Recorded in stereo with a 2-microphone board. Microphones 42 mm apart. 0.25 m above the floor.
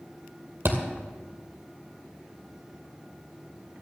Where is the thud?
55° right (ahead or behind), 2.5 m.